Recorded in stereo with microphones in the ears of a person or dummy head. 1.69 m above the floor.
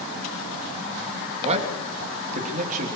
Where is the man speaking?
35° right (ahead or behind), 3 m; by 2.9 s 40° right (ahead or behind), 3.5 m.